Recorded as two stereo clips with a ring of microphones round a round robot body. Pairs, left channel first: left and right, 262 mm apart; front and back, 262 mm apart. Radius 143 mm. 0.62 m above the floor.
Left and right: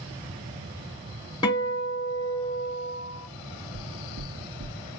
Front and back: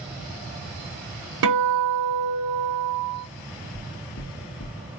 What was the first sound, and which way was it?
A guitar, 165° left.